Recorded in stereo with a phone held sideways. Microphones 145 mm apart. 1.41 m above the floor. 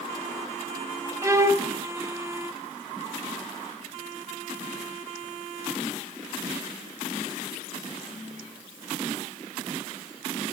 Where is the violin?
20° right (ahead or behind), 0.8 m.